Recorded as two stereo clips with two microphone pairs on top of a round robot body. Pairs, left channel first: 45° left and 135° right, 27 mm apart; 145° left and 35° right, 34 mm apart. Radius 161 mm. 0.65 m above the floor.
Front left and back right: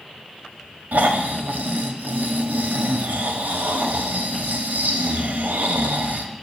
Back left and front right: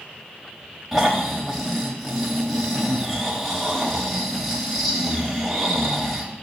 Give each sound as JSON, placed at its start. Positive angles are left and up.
{"t": 0.9, "sound": "snoring", "azimuth_deg": -130, "distance_m": 1.1}